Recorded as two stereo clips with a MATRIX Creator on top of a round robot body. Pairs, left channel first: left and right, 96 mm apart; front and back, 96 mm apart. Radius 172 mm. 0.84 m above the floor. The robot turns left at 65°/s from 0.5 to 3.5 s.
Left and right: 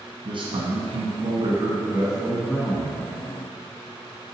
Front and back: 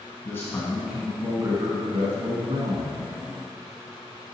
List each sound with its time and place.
0.2 s a man speaking: 65° right, 1.8 m; by 3.0 s 130° left, 1.8 m